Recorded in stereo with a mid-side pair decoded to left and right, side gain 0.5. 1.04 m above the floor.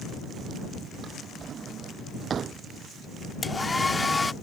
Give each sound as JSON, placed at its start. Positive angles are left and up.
{"t": 1.0, "sound": "a drawer", "azimuth_deg": -50}
{"t": 3.4, "sound": "a hair dryer", "azimuth_deg": 15}